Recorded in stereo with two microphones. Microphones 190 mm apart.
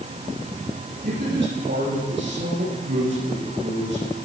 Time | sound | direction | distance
1.0 | a man speaking | 65° right (ahead or behind) | 8.5 m